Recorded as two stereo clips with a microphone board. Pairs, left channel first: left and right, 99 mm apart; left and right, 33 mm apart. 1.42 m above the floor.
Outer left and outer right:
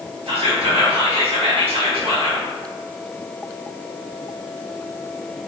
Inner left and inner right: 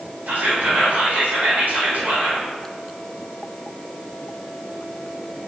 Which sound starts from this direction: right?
Whispering, at 0.3 s.